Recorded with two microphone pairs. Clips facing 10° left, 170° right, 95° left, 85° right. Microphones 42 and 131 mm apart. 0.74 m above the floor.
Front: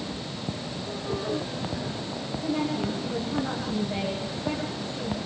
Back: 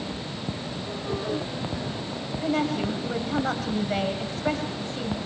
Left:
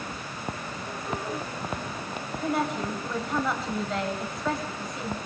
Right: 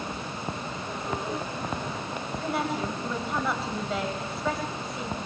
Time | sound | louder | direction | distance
2.4 | a woman speaking | back 3 dB, left 2 dB | 175° right | 4.5 m